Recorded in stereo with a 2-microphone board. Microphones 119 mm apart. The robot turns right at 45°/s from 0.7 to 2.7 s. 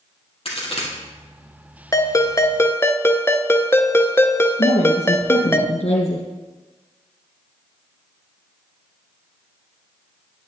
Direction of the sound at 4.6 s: 65° left (ahead or behind).